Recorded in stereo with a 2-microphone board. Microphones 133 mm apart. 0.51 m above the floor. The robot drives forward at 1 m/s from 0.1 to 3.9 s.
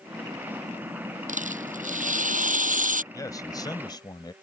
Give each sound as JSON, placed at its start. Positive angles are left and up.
{"t": 1.3, "sound": "a rattle", "side_deg": -70}
{"t": 3.1, "sound": "a man speaking", "side_deg": 25}